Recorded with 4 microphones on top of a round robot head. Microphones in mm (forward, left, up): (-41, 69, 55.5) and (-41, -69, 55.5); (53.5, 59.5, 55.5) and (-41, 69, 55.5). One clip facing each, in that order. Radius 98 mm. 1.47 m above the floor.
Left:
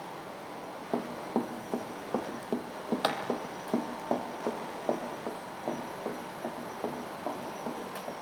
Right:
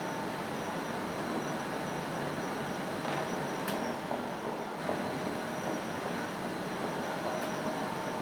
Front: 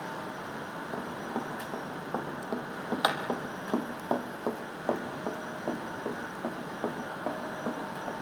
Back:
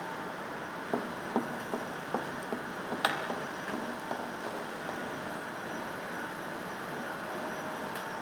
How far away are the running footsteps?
About 3.5 m.